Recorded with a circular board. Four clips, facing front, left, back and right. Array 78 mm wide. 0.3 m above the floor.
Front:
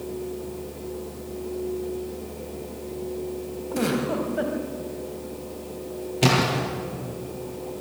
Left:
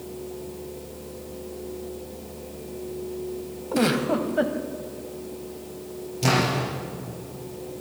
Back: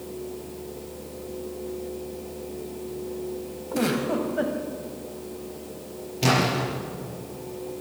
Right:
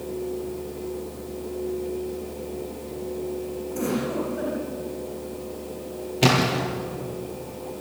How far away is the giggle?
About 2 m.